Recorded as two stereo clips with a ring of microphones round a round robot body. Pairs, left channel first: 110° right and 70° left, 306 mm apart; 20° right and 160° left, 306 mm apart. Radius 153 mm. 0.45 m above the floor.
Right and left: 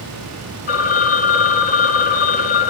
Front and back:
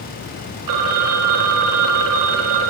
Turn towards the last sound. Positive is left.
turn(degrees=180)